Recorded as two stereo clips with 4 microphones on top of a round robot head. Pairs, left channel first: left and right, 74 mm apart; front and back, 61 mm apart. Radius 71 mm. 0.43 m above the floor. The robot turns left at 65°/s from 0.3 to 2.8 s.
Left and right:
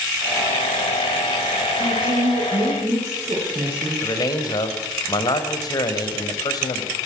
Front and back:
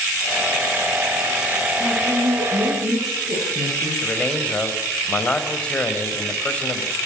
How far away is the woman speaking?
About 9 m.